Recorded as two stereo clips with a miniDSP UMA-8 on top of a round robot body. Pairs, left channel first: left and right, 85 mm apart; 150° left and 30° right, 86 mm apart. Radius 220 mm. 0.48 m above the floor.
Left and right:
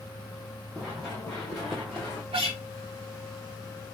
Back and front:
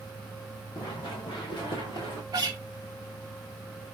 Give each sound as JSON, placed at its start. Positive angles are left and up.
{"t": 0.8, "sound": "running footsteps", "azimuth_deg": 180, "distance_m": 2.0}
{"t": 2.3, "sound": "a guitar", "azimuth_deg": -80, "distance_m": 0.8}